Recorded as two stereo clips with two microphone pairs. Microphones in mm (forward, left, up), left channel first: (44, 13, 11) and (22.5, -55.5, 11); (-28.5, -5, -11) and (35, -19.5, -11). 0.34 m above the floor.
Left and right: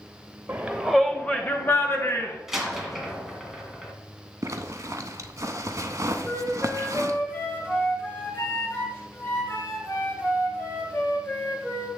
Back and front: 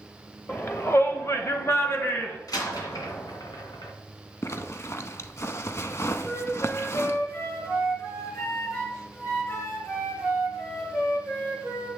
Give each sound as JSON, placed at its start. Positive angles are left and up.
{"t": 0.5, "sound": "a shout", "azimuth_deg": -155, "distance_m": 1.1}
{"t": 2.5, "sound": "a door slam", "azimuth_deg": 170, "distance_m": 2.0}
{"t": 4.4, "sound": "a zipper", "azimuth_deg": -145, "distance_m": 0.7}
{"t": 6.2, "sound": "a flute", "azimuth_deg": 130, "distance_m": 4.5}